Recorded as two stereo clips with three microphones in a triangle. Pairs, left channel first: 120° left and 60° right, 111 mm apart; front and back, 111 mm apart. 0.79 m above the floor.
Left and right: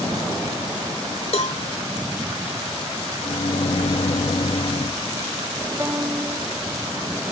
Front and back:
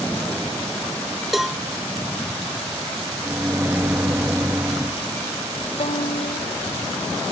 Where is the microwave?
110° left.